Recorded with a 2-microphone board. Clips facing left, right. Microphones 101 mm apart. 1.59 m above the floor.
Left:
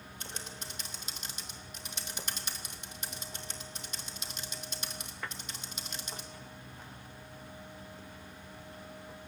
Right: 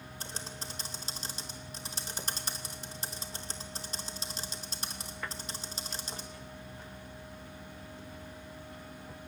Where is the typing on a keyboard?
35° right (ahead or behind), 2.5 m.